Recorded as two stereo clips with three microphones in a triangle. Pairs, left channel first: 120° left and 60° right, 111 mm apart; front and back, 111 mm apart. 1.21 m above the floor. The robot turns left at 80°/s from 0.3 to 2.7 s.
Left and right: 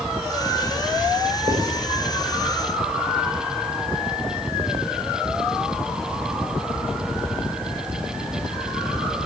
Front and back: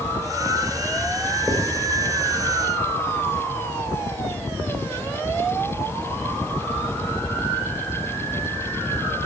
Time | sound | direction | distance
1.5 | writing | 90° right | 3.5 m